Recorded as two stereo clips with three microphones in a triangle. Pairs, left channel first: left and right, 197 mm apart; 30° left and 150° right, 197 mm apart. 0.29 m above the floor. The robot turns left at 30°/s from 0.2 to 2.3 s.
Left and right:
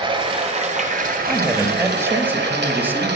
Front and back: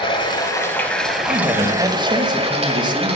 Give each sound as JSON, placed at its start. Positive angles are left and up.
{"t": 0.0, "sound": "running water", "azimuth_deg": -30, "distance_m": 1.2}
{"t": 1.3, "sound": "a man speaking", "azimuth_deg": -125, "distance_m": 0.9}